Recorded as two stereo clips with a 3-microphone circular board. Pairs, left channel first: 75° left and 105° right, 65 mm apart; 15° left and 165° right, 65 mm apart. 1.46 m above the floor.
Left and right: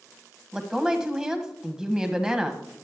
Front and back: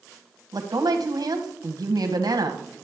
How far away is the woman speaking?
About 1.4 m.